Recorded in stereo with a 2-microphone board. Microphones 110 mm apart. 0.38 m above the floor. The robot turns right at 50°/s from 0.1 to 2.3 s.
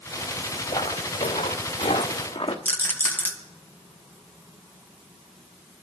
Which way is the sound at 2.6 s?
20° left (ahead or behind).